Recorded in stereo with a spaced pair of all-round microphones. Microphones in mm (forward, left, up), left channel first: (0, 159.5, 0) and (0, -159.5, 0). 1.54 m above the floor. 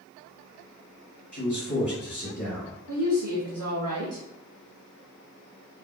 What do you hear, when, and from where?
1.3 s a man speaking: 65° left (ahead or behind), 1.4 m
2.9 s a woman speaking: 80° right, 0.7 m